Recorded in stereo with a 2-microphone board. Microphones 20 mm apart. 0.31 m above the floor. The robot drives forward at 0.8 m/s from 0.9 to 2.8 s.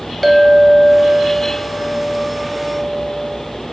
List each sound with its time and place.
0.2 s a clink: 5° left (ahead or behind), 1.1 m